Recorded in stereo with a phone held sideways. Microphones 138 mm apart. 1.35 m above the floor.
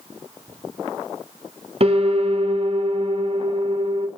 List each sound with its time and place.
1.8 s a piano: 45° right (ahead or behind), 3 m